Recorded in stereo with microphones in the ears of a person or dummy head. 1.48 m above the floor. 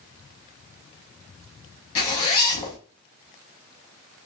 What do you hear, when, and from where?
1.9 s a zipper: 20° left (ahead or behind), 1.0 m